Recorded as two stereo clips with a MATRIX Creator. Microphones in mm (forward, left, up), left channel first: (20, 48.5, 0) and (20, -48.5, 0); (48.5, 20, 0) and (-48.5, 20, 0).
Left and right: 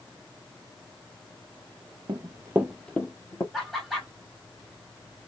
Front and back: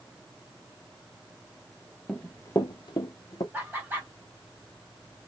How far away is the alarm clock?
I don't hear an alarm clock.